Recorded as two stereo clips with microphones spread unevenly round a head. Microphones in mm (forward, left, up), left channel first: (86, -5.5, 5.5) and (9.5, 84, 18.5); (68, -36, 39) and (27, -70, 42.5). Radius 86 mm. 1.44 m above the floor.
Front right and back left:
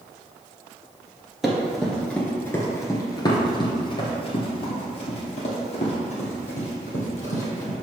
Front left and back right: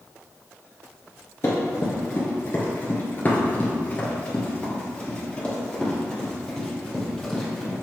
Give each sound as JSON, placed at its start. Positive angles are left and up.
{"t": 1.4, "sound": "running footsteps", "azimuth_deg": 60, "distance_m": 1.7}